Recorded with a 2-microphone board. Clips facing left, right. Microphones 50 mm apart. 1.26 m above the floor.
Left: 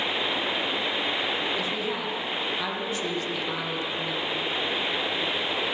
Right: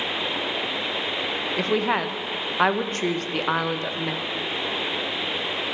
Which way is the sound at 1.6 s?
50° right (ahead or behind).